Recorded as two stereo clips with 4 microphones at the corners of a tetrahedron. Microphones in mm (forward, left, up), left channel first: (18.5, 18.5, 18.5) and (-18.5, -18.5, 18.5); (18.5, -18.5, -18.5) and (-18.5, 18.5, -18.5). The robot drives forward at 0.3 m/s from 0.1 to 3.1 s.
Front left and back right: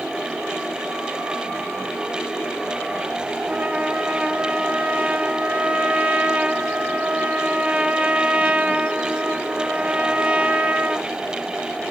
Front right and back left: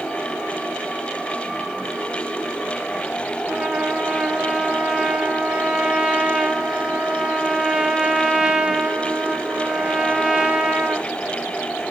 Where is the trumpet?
170° right, 0.7 m.